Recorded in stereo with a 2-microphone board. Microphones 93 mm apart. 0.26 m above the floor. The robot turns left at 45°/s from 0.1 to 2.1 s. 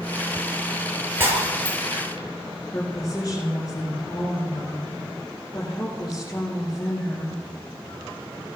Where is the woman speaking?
40° left (ahead or behind), 8.5 m.